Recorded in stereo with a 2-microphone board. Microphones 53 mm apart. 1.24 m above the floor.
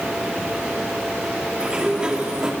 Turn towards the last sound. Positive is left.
turn(degrees=-20)  # may be behind; listen again after turning